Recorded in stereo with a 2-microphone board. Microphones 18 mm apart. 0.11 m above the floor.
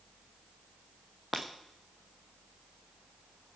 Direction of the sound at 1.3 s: 10° right (ahead or behind).